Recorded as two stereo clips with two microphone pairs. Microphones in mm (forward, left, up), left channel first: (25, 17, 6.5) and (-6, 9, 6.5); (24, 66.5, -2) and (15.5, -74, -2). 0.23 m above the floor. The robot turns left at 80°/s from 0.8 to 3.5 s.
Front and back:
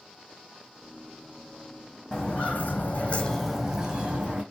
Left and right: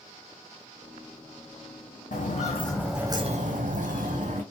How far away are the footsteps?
About 0.9 m.